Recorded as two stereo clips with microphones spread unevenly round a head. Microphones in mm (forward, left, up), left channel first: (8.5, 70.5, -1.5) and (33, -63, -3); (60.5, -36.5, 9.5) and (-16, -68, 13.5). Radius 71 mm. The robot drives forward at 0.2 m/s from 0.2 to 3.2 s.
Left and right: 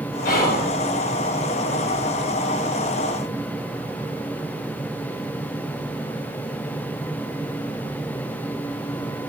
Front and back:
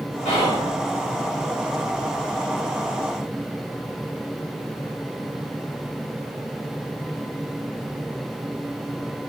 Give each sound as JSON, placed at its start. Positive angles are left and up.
{"t": 0.2, "sound": "whispering", "azimuth_deg": 75, "distance_m": 1.0}